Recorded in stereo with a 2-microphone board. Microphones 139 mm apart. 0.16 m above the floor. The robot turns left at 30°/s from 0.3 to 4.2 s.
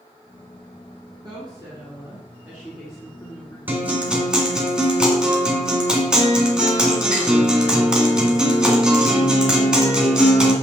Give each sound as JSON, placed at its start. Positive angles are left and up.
{"t": 1.2, "sound": "a woman speaking", "azimuth_deg": -125, "distance_m": 2.0}
{"t": 3.7, "sound": "a guitar", "side_deg": -15, "distance_m": 1.7}